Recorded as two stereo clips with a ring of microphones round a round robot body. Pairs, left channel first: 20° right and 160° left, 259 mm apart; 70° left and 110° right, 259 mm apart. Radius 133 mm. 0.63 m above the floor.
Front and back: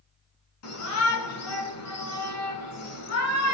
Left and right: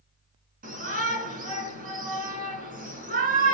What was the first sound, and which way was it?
A shout, 55° right.